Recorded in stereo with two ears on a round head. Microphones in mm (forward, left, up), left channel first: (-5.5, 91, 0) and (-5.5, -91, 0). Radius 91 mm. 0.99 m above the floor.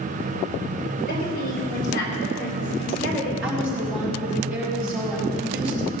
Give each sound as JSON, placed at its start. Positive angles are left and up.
{"t": 1.1, "sound": "a woman speaking", "side_deg": 50, "distance_m": 5.0}
{"t": 3.4, "sound": "a woman speaking", "side_deg": -5, "distance_m": 5.5}